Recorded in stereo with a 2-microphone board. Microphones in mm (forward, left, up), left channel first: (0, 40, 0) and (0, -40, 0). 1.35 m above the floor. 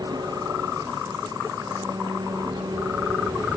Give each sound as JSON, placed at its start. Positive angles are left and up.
{"t": 0.0, "sound": "an engine running", "side_deg": -55}